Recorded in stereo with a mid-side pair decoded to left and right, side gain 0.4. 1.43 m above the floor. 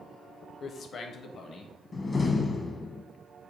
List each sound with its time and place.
0.6 s a man speaking: 55° left, 0.9 m
1.9 s a door slam: 40° left, 1.0 m